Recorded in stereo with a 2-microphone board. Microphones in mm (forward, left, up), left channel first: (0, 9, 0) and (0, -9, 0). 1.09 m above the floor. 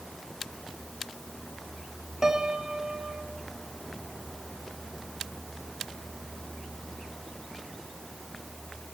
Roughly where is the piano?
Right.